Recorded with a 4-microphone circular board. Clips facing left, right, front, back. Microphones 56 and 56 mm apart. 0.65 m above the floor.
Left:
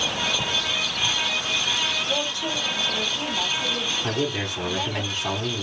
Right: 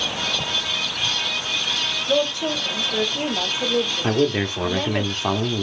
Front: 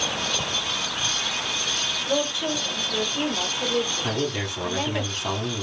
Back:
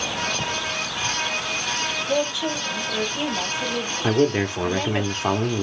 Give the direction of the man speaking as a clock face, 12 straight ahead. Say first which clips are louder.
Right 6 dB, back 7 dB; 5 o'clock.